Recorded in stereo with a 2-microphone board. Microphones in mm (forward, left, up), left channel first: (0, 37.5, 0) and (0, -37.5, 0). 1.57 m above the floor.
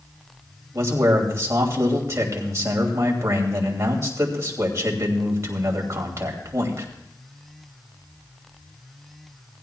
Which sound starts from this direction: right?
A man speaking, at 0.7 s.